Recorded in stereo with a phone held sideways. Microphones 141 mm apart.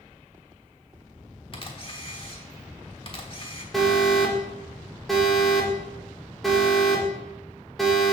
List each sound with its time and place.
1.5 s a camera shutter: 40° left (ahead or behind), 1.3 m
3.7 s an alarm: centre (ahead or behind), 1.5 m